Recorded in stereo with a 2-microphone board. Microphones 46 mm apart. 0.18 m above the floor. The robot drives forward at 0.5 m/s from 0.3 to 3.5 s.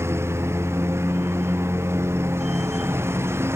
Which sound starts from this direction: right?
A lawn mower, at 0.0 s.